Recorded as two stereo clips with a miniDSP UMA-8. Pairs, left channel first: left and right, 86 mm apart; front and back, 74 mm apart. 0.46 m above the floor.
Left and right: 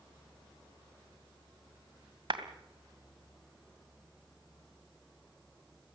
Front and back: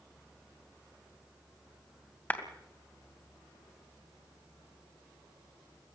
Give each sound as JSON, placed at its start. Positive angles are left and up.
{"t": 2.3, "sound": "a clap", "azimuth_deg": -65, "distance_m": 2.5}